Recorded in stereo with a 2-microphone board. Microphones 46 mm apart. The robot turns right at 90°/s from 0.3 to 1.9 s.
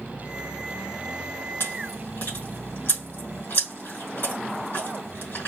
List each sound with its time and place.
1.6 s chewing: 75° left (ahead or behind), 3 m; by 5.5 s 55° left (ahead or behind), 3 m